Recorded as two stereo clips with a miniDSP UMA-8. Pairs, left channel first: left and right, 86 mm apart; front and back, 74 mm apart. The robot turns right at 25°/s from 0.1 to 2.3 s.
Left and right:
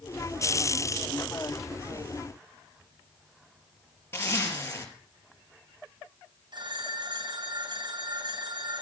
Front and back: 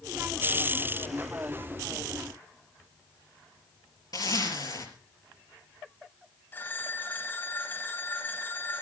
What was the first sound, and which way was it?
A zipper, 30° left.